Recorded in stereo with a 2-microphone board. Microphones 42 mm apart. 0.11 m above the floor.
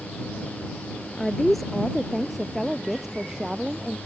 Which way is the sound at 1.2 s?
10° left (ahead or behind).